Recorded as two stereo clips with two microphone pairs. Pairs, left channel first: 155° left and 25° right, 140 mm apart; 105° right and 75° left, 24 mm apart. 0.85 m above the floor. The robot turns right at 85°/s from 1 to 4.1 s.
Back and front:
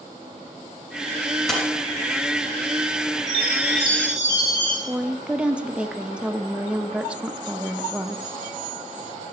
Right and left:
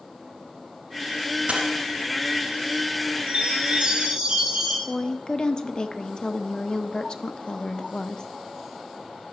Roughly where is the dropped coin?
Ahead left.